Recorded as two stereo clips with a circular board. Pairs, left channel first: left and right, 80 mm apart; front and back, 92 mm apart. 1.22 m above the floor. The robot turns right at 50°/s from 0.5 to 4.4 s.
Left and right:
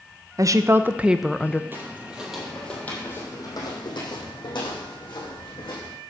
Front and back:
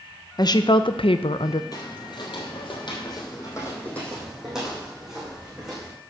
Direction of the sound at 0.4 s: 40° right.